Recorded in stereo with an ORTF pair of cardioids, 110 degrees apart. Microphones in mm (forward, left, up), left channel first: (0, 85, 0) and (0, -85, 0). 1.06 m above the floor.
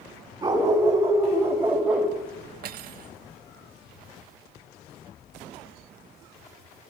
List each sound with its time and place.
0.4 s a dog barking: 25° right, 3 m; by 2.1 s 5° right, 2 m
2.6 s cutlery clinking: 65° right, 1.0 m